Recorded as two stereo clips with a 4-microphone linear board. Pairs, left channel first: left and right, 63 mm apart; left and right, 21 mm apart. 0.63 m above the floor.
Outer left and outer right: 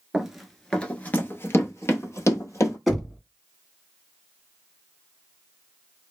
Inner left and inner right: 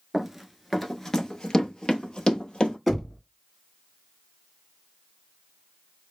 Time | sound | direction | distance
0.1 | running footsteps | 10° right (ahead or behind) | 0.6 m
2.9 | knocking | 5° left (ahead or behind) | 1.1 m